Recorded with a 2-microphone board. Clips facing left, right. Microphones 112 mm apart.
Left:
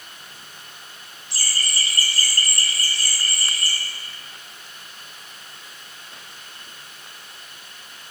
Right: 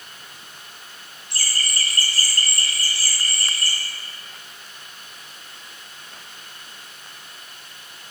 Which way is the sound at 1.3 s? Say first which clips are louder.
Even; 60° right (ahead or behind).